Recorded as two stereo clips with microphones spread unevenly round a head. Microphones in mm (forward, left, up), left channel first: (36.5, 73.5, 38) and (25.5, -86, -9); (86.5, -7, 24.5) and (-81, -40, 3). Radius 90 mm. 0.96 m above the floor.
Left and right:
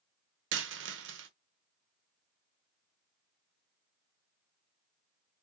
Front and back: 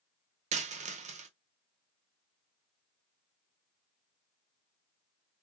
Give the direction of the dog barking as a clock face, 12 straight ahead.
No dog barking in this recording.